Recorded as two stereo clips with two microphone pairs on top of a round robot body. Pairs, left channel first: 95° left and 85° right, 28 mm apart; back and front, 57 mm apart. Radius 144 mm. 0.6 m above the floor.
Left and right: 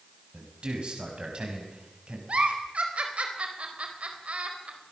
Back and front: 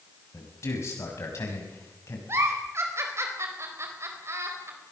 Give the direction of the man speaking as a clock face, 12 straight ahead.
5 o'clock.